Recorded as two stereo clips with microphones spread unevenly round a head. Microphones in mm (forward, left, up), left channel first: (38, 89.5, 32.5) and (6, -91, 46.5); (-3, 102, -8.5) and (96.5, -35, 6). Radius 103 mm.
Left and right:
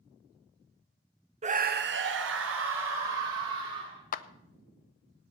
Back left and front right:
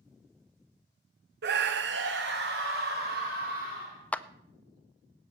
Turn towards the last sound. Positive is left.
turn(degrees=40)